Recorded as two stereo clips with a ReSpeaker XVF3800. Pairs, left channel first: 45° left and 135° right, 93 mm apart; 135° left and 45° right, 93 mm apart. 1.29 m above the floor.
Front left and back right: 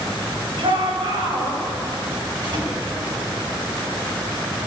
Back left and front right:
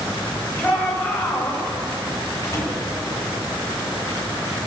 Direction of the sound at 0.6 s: 150° right.